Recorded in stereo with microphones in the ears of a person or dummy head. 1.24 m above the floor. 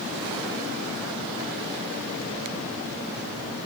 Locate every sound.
Only background noise.